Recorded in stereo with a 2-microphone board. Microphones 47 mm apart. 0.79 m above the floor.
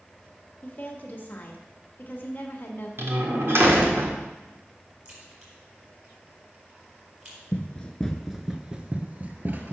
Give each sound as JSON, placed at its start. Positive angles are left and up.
{"t": 0.6, "sound": "a woman speaking", "side_deg": 40, "distance_m": 1.4}
{"t": 3.0, "sound": "a door slam", "side_deg": -60, "distance_m": 1.4}
{"t": 5.0, "sound": "a crack", "side_deg": -35, "distance_m": 4.0}
{"t": 7.5, "sound": "running footsteps", "side_deg": 30, "distance_m": 0.8}